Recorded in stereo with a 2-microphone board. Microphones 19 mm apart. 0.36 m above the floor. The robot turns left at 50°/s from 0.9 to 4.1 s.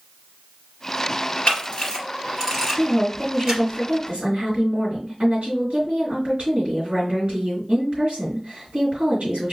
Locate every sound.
1.5 s a camera shutter: 60° left (ahead or behind), 2.5 m; by 3.6 s 45° right (ahead or behind), 2.5 m
2.8 s a woman speaking: 5° left, 3 m; by 9.5 s 65° right, 3 m